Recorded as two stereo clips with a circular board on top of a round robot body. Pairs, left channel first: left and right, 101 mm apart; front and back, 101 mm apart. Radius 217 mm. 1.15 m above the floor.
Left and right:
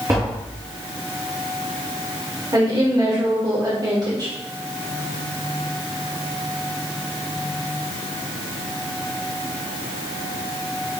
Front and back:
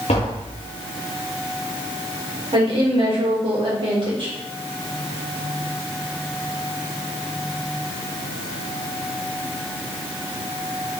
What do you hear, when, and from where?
0.1 s tapping: 25° right, 0.5 m
2.5 s a woman speaking: 140° right, 2.5 m